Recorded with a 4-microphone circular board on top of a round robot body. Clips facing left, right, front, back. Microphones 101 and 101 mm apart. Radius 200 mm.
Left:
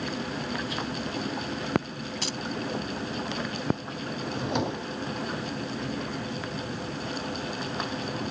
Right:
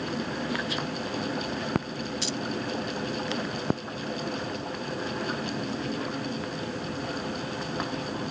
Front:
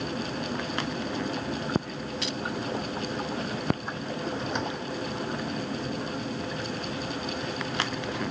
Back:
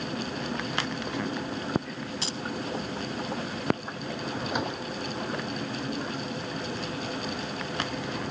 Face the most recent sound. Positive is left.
turn(degrees=100)